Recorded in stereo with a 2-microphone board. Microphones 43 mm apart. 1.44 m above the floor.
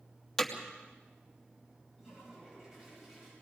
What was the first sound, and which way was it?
Hammering, 10° left (ahead or behind).